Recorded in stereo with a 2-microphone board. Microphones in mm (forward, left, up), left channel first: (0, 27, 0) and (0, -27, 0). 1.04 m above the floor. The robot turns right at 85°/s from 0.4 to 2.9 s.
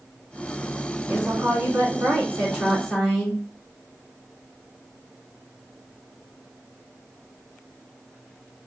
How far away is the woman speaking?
About 2 m.